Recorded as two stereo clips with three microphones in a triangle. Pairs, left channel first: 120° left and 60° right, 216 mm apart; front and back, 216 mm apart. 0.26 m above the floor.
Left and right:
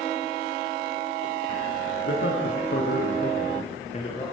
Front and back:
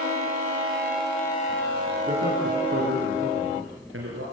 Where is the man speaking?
135° left, 3.5 m; by 4.2 s straight behind, 4.5 m.